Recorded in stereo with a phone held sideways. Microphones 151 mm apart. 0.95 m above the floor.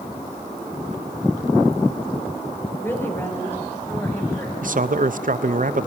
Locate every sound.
2.8 s a woman speaking: 15° left (ahead or behind), 4 m
4.6 s a man speaking: 65° right (ahead or behind), 0.6 m